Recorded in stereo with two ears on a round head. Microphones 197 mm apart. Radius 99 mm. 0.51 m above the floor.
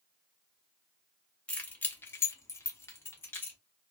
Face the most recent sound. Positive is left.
turn(degrees=10)  # may be behind; listen again after turning